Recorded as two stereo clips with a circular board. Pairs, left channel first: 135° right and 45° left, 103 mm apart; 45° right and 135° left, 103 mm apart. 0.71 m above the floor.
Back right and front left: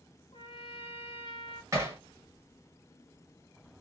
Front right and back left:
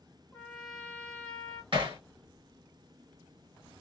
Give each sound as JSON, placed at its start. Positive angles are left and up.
{"t": 0.3, "sound": "a trumpet", "azimuth_deg": -120, "distance_m": 1.0}
{"t": 1.7, "sound": "hammering", "azimuth_deg": 105, "distance_m": 1.5}